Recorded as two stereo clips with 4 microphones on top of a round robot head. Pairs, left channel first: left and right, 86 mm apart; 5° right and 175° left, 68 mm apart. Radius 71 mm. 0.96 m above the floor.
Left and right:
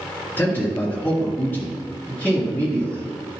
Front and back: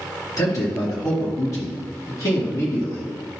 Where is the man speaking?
20° left, 2 m.